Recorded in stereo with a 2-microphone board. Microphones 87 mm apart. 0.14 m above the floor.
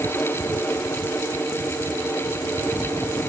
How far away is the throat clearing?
No throat clearing in this recording.